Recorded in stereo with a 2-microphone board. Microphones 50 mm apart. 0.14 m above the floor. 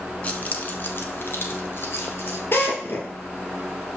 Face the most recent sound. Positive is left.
turn(degrees=50)  # may be behind; listen again after turning